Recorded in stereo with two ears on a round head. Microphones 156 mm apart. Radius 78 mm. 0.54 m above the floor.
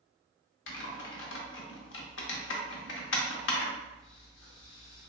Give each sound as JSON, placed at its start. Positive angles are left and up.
{"t": 0.7, "sound": "typing on a keyboard", "side_deg": 80, "distance_m": 0.7}